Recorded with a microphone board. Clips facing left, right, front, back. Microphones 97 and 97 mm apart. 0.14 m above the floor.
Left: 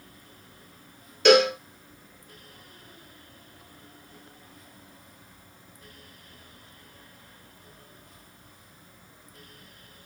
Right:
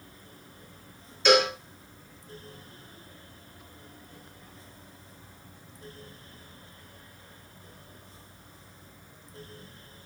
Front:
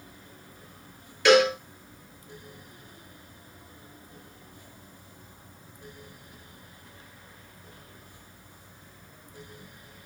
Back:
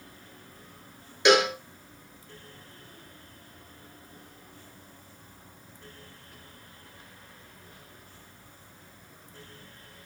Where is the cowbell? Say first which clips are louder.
Left 4 dB, front 2 dB; 110° left, 0.7 m.